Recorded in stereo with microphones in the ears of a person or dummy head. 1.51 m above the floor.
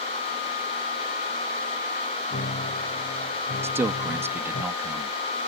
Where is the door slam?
I don't hear a door slam.